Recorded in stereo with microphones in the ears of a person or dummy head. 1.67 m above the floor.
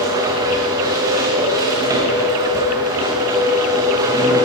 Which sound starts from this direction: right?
A machine running, at 0.0 s.